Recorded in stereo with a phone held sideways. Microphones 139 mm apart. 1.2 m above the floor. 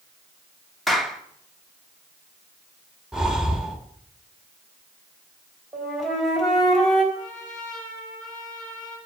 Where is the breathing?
5° right (ahead or behind), 2.5 m.